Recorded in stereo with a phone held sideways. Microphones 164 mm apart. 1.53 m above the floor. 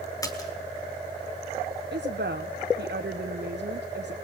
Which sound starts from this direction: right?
A woman speaking, at 1.9 s.